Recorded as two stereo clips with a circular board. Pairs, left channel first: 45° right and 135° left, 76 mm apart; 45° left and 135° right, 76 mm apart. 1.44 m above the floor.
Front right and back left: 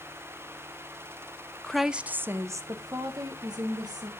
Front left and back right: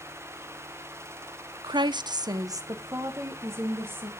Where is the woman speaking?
125° right, 0.6 m; by 4.1 s 165° left, 2 m.